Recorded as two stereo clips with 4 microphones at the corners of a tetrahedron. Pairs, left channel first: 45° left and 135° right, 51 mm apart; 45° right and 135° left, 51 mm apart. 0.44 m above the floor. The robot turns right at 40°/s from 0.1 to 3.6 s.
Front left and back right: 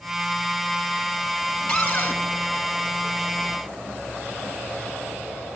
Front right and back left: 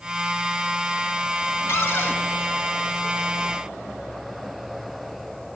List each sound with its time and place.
1.7 s a cupboard door: 25° right, 1.8 m; by 2.2 s 5° right, 1.8 m